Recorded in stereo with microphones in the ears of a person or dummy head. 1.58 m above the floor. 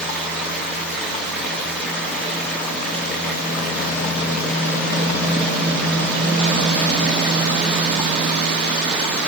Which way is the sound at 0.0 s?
5° left (ahead or behind).